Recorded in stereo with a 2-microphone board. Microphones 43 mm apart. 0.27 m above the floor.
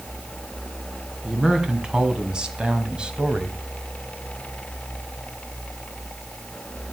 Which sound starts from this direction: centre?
A man speaking, at 1.2 s.